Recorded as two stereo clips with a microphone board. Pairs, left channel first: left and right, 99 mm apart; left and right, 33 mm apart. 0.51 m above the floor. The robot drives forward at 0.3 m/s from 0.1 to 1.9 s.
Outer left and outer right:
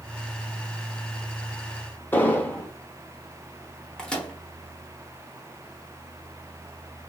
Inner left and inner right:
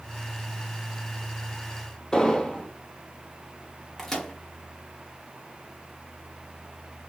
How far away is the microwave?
About 0.9 m.